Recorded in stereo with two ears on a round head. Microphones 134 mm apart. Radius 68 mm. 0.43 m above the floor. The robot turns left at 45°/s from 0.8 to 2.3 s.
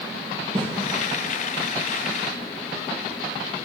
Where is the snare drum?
40° right (ahead or behind), 3.5 m.